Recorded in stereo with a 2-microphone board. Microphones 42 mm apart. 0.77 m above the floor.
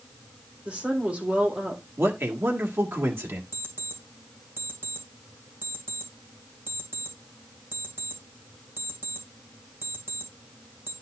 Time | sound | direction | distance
0.7 | a woman speaking | 30° right (ahead or behind) | 3 m
2.0 | a man speaking | 70° right (ahead or behind) | 1.8 m
3.5 | an alarm clock | 55° right (ahead or behind) | 2 m